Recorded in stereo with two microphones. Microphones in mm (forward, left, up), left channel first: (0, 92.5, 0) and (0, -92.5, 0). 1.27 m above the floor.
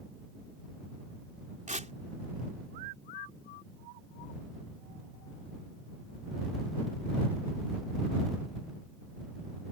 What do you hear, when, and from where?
1.7 s tearing paper: 40° right (ahead or behind)